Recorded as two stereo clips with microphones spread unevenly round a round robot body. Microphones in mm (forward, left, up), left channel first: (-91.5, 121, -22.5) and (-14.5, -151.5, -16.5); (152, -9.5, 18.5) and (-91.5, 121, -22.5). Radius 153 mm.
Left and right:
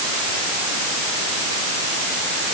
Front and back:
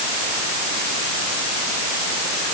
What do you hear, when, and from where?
Only background noise.